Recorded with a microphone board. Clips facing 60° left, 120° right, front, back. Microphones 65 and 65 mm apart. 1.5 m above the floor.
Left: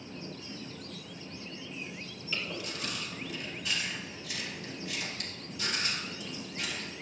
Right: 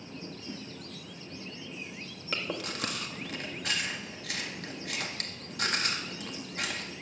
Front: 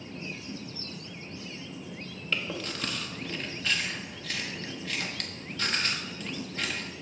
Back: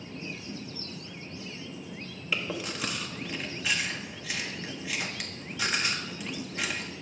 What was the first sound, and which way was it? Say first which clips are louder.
A whoosh: right 2 dB, even; 90° right.